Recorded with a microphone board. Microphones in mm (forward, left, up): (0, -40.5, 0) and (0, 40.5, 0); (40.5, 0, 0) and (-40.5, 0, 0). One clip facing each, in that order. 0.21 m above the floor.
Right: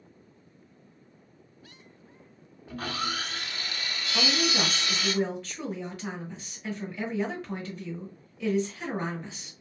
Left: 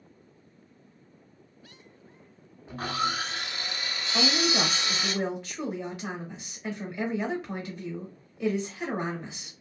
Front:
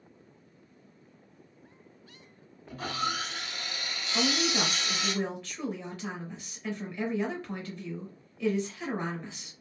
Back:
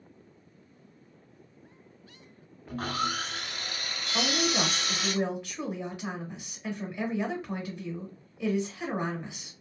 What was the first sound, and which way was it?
Sawing, 155° left.